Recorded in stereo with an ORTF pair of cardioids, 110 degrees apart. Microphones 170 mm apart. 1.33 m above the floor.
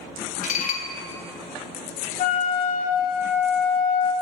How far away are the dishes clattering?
About 0.9 m.